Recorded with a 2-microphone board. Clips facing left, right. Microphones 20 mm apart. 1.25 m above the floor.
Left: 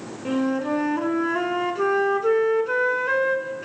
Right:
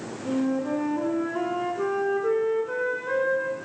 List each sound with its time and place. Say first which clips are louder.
0.2 s a flute: left 2 dB; 50° left (ahead or behind), 2 m